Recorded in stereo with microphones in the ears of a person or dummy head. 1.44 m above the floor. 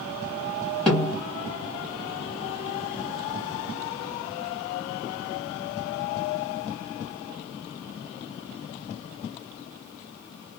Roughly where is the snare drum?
Centre.